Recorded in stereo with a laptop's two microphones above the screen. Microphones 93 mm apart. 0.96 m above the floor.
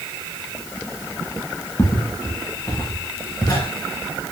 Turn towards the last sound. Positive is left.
turn(degrees=45)  # may be behind; listen again after turning